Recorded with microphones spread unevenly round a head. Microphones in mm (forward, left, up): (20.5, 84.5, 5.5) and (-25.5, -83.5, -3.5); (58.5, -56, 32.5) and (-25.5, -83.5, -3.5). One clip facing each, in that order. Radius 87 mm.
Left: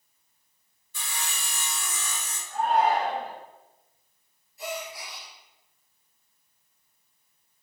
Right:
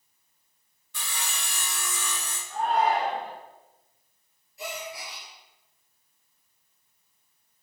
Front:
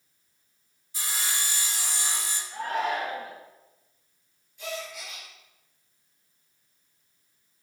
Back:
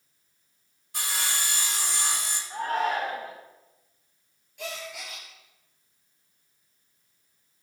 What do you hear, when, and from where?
0.9 s sawing: 140° right, 1.4 m
2.5 s a shout: 120° right, 3.5 m
4.6 s a gasp: 135° right, 4 m